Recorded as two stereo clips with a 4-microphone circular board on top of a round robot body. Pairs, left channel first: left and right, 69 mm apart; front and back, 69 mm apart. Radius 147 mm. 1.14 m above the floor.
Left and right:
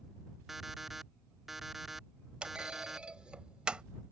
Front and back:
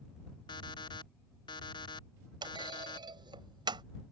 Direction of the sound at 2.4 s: 170° right.